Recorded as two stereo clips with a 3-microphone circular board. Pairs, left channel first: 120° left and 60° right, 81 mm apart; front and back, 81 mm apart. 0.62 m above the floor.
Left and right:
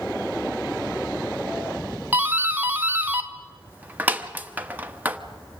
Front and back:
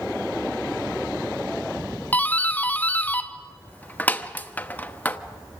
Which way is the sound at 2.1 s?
30° right.